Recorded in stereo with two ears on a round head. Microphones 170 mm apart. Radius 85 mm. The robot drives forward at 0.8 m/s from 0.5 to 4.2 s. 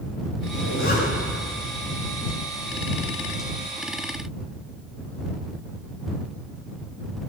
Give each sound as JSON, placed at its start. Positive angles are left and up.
{"t": 0.5, "sound": "a zipper", "side_deg": 55, "distance_m": 8.5}